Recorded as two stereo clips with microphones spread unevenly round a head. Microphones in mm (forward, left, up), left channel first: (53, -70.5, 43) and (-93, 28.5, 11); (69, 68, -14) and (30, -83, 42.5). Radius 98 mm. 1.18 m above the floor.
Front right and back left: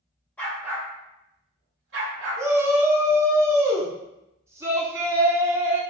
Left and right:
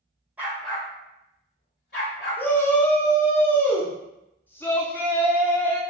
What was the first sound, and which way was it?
A dog barking, 90° right.